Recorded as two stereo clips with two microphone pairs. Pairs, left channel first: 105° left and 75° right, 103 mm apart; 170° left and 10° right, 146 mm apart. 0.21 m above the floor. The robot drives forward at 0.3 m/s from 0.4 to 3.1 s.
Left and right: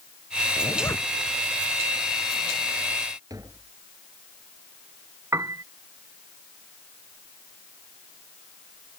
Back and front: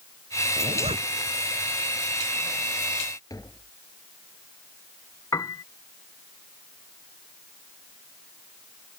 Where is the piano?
130° right.